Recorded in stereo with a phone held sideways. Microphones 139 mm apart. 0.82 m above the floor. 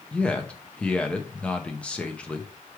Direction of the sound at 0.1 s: 10° left (ahead or behind).